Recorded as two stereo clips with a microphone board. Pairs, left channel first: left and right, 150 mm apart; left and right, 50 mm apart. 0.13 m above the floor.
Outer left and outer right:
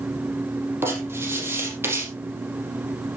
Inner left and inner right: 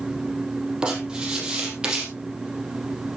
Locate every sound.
0.8 s writing: 15° right (ahead or behind), 4.5 m